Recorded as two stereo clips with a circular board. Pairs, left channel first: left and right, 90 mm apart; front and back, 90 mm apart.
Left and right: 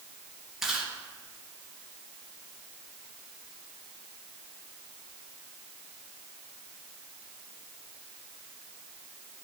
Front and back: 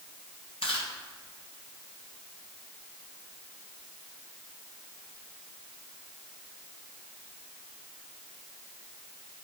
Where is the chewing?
5° right, 3 m.